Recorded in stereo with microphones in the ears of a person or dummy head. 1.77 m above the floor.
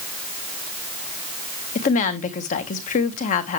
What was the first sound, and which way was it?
A woman speaking, 50° left (ahead or behind).